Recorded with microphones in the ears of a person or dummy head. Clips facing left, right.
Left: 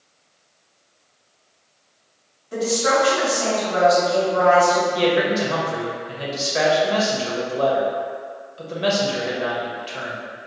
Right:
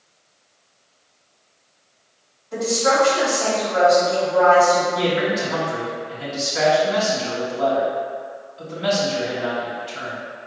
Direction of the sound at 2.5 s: 40° left (ahead or behind).